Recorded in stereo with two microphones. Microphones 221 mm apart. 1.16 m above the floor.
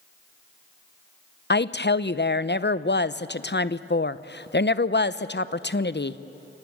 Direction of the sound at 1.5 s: 50° left (ahead or behind).